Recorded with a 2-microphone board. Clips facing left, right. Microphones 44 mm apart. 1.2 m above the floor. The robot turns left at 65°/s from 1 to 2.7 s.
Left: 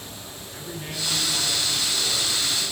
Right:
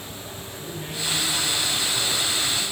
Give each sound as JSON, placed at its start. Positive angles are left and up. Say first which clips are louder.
{"t": 0.5, "sound": "a man speaking", "louder": "even", "azimuth_deg": 10, "distance_m": 8.0}